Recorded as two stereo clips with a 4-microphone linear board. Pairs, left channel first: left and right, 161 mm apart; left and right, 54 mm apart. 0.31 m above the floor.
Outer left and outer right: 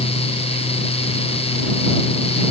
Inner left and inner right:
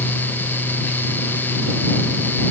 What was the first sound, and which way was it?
Only background noise.